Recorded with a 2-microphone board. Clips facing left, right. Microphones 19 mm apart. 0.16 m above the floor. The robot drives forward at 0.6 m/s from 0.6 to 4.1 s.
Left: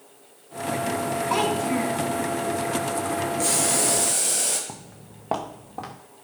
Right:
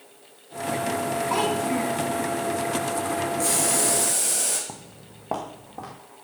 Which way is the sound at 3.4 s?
15° left (ahead or behind).